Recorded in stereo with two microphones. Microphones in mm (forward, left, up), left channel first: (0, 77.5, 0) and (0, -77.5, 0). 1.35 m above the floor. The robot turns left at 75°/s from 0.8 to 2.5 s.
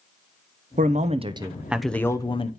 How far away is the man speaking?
About 0.7 m.